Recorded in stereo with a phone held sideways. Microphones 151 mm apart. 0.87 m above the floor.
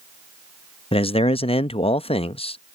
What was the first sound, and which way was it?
A man speaking, 40° left (ahead or behind).